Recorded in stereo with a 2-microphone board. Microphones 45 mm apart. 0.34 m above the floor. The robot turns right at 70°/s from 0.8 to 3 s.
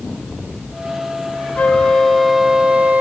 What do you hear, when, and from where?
1.6 s a flute: 140° left, 0.5 m; by 3.0 s 120° right, 0.5 m